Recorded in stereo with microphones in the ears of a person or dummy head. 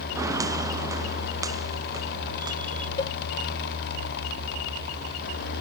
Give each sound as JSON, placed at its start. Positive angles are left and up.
{"t": 0.1, "sound": "footsteps", "side_deg": -20}
{"t": 3.0, "sound": "a cowbell", "side_deg": 25}